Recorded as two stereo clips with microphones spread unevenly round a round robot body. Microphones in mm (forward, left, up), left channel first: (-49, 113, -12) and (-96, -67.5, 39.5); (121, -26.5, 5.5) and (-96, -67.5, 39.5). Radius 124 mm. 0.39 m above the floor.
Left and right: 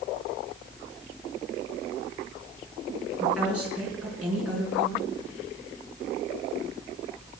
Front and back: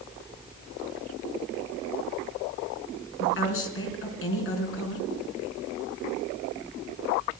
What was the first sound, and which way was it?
A woman speaking, 15° right.